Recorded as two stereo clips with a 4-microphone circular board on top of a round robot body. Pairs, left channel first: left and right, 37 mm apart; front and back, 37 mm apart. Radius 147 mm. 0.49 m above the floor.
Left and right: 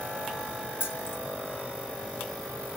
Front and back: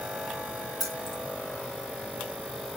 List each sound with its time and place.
0.8 s keys jangling: 90° left, 1.7 m